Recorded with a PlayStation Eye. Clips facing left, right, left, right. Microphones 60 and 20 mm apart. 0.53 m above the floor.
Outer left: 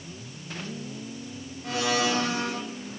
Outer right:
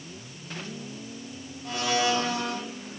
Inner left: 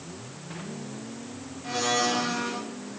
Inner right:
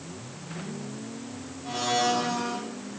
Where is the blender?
75° left (ahead or behind), 2 m.